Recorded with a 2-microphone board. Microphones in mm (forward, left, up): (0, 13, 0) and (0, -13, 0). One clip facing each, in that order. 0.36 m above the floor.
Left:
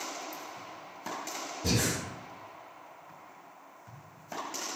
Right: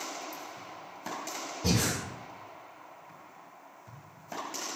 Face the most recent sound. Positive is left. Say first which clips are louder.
# right 1 dB
turn(degrees=-55)  # may be behind; listen again after turning